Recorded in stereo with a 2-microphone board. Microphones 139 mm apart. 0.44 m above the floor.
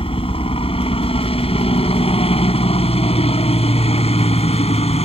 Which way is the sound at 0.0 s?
40° left (ahead or behind).